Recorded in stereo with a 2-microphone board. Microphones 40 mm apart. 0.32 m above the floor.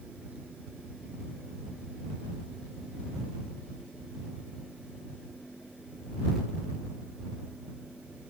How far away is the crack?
I don't hear a crack.